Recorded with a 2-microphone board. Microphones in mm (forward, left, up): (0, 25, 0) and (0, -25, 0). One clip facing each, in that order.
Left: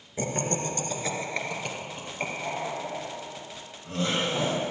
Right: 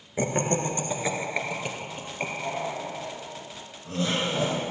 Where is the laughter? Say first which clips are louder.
Right 4 dB; 30° right (ahead or behind), 1.2 m; by 4.6 s 5° left (ahead or behind), 4.5 m.